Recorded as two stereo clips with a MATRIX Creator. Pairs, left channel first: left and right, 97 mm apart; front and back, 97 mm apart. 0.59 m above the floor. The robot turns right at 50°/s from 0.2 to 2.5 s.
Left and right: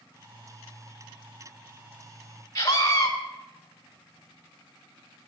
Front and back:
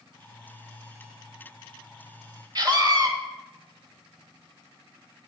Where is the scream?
140° left, 1.4 m.